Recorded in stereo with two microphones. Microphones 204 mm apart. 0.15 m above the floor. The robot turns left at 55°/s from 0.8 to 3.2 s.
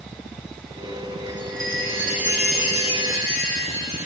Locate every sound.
1.3 s a chime: 60° right, 2.5 m; by 4.1 s 170° right, 2.5 m